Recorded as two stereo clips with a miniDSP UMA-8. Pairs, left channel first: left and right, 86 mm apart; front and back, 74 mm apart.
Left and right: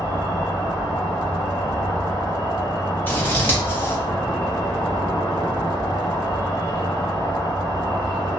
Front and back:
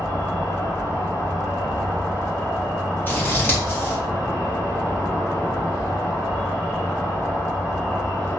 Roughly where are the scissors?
Ahead left.